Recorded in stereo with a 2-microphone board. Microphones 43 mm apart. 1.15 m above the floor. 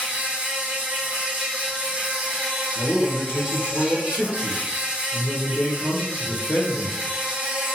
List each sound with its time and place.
0.0 s an insect: 35° right (ahead or behind), 1.3 m
2.8 s a man speaking: 45° left (ahead or behind), 0.8 m